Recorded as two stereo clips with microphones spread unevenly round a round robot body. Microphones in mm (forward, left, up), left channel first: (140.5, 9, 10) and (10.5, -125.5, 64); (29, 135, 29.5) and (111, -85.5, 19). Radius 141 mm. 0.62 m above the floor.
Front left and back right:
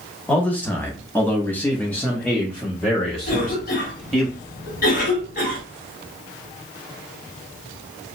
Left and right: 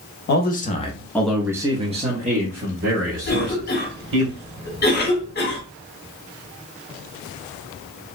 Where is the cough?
65° left, 1.1 m.